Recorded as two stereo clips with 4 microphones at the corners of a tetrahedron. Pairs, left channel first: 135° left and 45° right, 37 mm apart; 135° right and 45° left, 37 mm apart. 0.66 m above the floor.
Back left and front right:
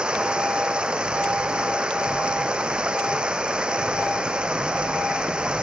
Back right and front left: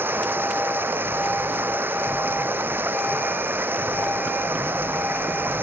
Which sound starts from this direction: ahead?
Running water, at 0.0 s.